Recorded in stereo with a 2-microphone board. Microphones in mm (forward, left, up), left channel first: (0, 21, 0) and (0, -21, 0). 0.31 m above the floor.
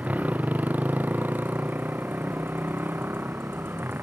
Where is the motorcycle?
40° right (ahead or behind); by 4.0 s 60° right (ahead or behind).